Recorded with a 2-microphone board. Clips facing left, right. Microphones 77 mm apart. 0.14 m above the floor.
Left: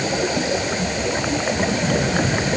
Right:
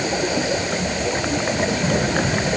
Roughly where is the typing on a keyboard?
I don't hear typing on a keyboard.